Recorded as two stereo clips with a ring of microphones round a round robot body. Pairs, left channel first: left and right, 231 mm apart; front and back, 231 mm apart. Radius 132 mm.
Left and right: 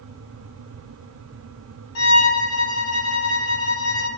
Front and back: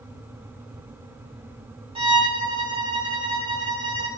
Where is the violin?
110° left, 4.5 m.